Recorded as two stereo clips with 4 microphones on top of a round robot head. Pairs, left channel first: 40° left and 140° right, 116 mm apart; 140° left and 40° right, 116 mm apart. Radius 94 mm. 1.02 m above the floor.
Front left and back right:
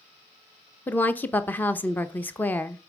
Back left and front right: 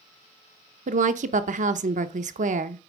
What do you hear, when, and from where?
0.9 s a woman speaking: 35° right, 0.7 m